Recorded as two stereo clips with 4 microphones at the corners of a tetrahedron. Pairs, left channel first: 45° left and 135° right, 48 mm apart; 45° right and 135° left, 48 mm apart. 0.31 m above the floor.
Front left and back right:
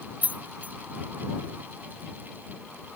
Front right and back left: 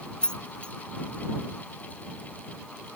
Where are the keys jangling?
105° right.